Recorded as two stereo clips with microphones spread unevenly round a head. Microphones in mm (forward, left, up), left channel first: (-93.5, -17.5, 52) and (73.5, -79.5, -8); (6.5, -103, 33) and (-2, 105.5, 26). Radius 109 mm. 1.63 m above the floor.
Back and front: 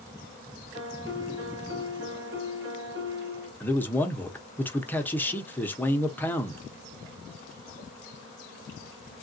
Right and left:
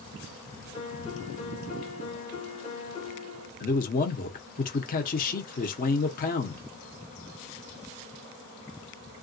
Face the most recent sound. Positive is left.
turn(degrees=-135)